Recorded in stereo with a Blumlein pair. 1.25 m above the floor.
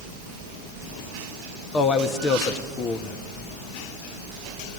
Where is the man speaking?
25° left, 1.4 m.